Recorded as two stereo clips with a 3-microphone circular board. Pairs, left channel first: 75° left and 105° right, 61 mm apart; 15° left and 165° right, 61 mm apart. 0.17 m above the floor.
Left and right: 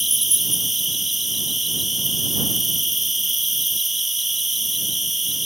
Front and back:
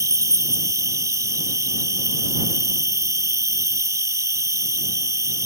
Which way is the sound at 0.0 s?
165° left.